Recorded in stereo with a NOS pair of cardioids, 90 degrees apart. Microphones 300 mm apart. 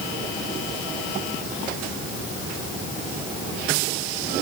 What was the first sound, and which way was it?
Only background noise.